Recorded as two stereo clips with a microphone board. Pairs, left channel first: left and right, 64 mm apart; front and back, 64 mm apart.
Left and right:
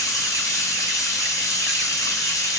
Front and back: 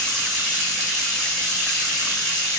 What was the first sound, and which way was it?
Running water, 70° left.